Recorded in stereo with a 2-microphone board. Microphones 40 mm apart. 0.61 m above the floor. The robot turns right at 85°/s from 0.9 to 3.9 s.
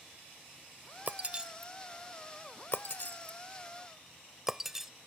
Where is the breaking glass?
50° right (ahead or behind); by 4.9 s 10° right (ahead or behind).